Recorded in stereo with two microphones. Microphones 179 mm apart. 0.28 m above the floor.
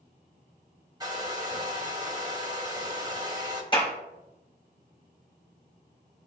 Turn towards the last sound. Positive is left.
turn(degrees=30)  # may be behind; listen again after turning